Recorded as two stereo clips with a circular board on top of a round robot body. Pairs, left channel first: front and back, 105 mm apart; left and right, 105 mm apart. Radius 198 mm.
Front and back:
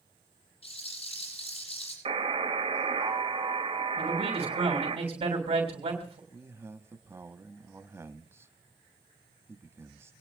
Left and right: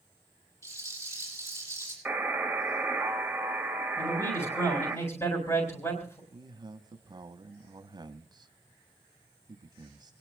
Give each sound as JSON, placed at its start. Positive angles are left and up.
{"t": 0.6, "sound": "a rattle", "azimuth_deg": 25, "distance_m": 9.0}
{"t": 2.0, "sound": "a buzzer", "azimuth_deg": -170, "distance_m": 3.0}
{"t": 4.0, "sound": "a man speaking", "azimuth_deg": 155, "distance_m": 4.0}
{"t": 6.3, "sound": "a man speaking", "azimuth_deg": -120, "distance_m": 1.4}